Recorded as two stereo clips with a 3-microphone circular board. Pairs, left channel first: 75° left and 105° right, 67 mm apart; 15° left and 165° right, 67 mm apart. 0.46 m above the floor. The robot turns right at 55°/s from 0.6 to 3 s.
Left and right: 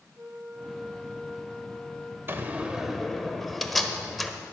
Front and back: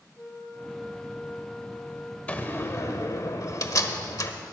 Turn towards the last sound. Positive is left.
turn(degrees=-15)